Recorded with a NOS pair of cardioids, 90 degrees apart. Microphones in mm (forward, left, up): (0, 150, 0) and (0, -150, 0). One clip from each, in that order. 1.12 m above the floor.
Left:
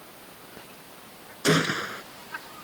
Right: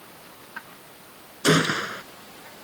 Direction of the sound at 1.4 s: 20° right.